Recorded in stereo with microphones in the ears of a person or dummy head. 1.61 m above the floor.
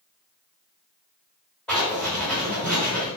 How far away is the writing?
About 1.8 m.